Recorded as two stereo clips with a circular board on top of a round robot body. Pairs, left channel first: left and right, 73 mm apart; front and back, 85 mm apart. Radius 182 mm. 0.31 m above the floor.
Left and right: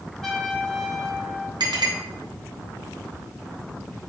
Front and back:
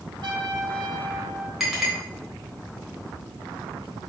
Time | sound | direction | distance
0.2 | a trumpet | 175° left | 2 m
1.6 | a clink | 90° right | 3.5 m